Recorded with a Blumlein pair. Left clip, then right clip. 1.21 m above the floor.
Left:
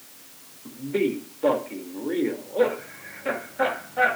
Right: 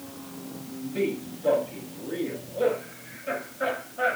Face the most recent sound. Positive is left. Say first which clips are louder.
# left 4 dB
turn(degrees=45)